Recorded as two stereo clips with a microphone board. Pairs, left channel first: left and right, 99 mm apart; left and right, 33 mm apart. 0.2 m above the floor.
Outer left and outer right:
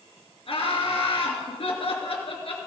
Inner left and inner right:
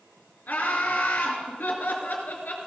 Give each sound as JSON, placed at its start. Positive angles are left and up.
{"t": 0.5, "sound": "laughter", "side_deg": 65, "distance_m": 3.0}